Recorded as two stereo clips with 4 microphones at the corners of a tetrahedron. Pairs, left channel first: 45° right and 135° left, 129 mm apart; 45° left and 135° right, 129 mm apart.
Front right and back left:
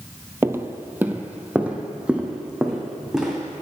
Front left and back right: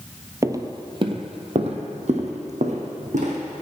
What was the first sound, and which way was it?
Footsteps, 170° right.